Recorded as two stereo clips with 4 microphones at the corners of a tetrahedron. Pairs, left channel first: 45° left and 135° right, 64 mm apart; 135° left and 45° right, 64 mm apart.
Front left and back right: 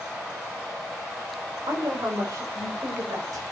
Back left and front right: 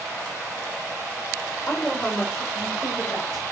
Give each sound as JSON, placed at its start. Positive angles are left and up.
{"t": 1.7, "sound": "a woman speaking", "azimuth_deg": -150, "distance_m": 3.5}